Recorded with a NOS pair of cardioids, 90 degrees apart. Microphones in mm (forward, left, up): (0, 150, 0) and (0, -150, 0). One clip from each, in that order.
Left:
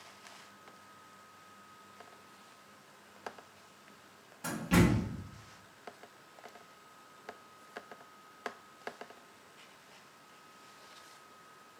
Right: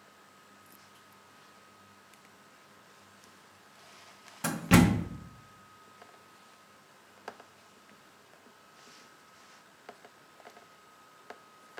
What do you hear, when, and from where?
4.4 s a door slam: 45° right, 0.5 m